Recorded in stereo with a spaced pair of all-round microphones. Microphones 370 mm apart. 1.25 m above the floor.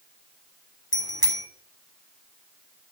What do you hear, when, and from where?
0.9 s a bicycle bell: 75° left (ahead or behind), 3 m